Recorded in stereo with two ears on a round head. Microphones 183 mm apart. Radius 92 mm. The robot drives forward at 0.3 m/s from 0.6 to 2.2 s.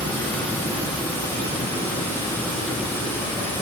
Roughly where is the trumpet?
I don't hear a trumpet.